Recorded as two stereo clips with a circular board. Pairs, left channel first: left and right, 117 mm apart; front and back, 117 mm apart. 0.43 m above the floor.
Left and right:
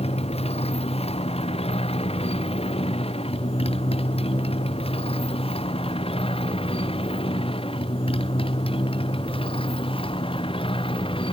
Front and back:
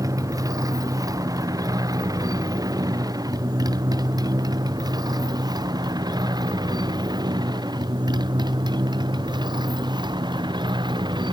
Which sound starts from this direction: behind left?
A motorcycle, at 0.0 s.